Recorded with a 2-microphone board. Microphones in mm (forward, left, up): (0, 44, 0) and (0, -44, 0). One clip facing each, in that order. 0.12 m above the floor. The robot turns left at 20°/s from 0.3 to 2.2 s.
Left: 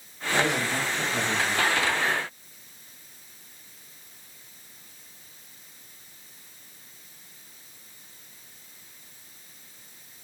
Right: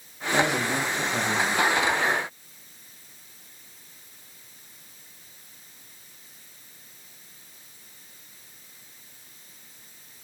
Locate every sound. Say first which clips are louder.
0.3 s a man speaking: right 2 dB; 70° right (ahead or behind), 5 m; by 1.7 s 60° right (ahead or behind), 5 m